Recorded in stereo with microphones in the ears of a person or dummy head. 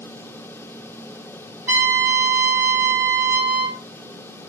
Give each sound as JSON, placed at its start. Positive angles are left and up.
{"t": 1.7, "sound": "a trumpet", "side_deg": -10, "distance_m": 4.5}